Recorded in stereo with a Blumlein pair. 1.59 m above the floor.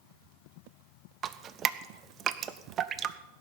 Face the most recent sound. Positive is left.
turn(degrees=-30)